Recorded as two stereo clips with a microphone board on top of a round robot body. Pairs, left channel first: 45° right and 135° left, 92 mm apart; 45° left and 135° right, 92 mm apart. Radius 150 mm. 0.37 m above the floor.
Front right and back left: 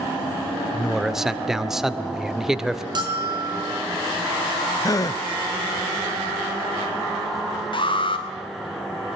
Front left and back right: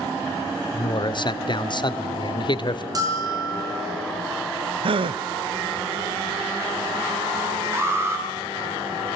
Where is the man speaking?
50° left, 1.8 m.